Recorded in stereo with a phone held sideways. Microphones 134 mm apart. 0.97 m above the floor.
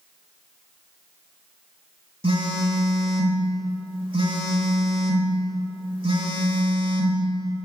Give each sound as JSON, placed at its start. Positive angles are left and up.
{"t": 2.2, "sound": "a phone buzzing", "side_deg": -40, "distance_m": 1.2}